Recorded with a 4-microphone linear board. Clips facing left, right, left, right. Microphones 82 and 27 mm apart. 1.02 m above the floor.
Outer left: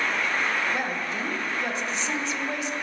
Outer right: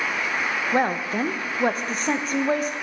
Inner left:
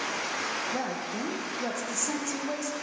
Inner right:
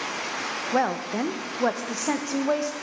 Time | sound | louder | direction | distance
0.7 | a woman speaking | outer right 6 dB, inner right 7 dB | 45° right (ahead or behind) | 0.8 m